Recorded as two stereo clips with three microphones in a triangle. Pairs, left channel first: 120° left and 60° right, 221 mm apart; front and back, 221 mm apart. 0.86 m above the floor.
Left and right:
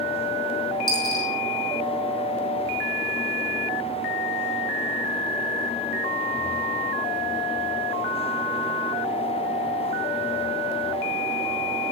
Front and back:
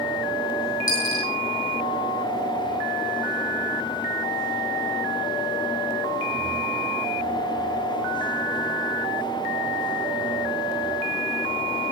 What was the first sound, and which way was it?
A dropped coin, 135° left.